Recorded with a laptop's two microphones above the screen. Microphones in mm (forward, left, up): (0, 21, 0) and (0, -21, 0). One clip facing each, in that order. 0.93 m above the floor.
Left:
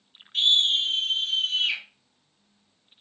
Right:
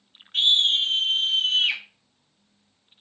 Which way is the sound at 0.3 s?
85° right.